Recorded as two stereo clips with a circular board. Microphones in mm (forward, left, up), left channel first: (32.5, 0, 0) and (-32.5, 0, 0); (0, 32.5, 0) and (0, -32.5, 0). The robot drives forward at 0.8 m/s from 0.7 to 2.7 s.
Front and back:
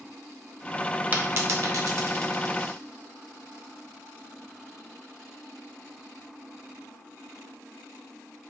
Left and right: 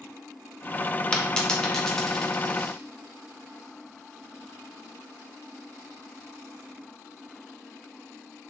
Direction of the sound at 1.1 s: 150° left.